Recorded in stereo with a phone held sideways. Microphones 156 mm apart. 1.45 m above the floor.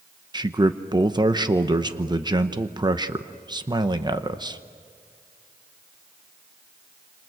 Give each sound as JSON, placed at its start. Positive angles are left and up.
{"t": 0.3, "sound": "a man speaking", "side_deg": -30, "distance_m": 0.8}